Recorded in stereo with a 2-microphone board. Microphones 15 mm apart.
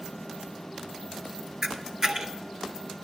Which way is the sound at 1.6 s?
35° right (ahead or behind).